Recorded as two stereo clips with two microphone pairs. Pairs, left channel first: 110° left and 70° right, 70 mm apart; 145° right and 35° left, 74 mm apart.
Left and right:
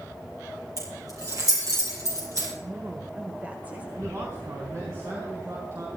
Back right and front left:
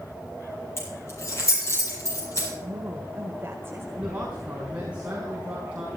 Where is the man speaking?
30° right, 4.5 m.